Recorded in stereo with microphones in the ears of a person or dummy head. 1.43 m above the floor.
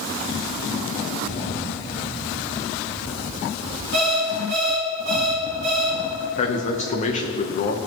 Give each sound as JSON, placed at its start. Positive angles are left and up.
{"t": 3.9, "sound": "an alarm clock", "side_deg": -55, "distance_m": 2.5}
{"t": 6.4, "sound": "a man speaking", "side_deg": 40, "distance_m": 1.1}